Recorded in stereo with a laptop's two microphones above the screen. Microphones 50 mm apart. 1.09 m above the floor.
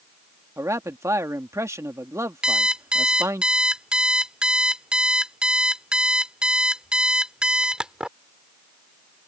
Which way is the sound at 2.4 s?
20° right (ahead or behind).